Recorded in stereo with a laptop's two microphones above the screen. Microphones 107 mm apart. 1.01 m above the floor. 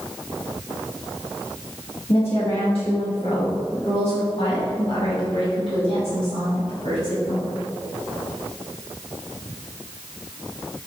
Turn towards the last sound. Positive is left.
turn(degrees=75)  # may be behind; listen again after turning